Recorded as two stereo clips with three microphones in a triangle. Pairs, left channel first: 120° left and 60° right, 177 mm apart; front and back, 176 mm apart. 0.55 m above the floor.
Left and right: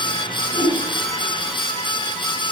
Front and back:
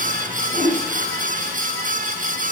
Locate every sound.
0.5 s a whoosh: 95° left, 2.5 m